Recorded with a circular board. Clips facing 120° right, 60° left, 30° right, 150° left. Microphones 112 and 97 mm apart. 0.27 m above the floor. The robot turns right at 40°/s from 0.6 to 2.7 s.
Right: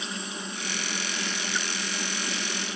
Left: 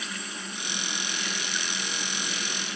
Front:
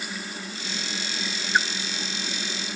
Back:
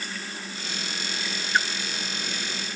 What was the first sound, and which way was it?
A splash, 110° right.